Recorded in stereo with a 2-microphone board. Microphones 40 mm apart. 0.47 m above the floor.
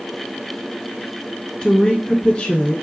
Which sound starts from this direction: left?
A woman speaking, at 1.6 s.